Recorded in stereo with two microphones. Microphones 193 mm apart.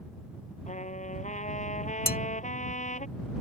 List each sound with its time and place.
0.7 s a trumpet: 40° left (ahead or behind)
2.1 s dishes clattering: 50° left (ahead or behind)